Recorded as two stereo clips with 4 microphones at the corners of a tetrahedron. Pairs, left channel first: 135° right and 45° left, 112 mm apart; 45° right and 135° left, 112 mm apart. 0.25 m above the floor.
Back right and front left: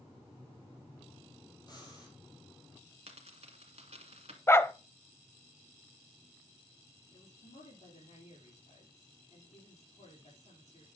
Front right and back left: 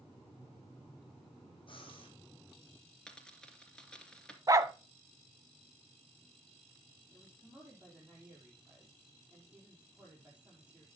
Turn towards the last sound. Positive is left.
turn(degrees=-145)